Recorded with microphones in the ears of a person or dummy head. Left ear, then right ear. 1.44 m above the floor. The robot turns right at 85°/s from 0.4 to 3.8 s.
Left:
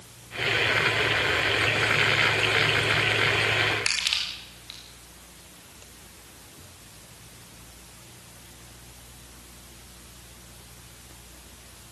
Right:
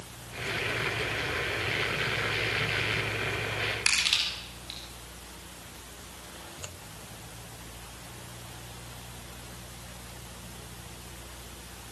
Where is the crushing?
5° left (ahead or behind), 5 m.